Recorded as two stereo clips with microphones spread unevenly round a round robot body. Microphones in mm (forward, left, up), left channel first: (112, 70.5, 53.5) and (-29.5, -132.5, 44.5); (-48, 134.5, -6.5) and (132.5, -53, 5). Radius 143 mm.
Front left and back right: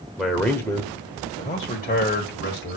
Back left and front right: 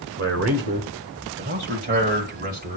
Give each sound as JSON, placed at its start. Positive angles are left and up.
{"t": 0.2, "sound": "a man speaking", "azimuth_deg": -35, "distance_m": 1.4}